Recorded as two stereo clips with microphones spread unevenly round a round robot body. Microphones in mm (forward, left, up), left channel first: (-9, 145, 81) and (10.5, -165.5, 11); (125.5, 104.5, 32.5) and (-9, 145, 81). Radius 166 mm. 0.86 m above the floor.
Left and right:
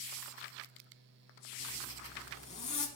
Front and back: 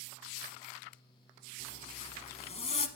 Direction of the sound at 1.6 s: 35° left.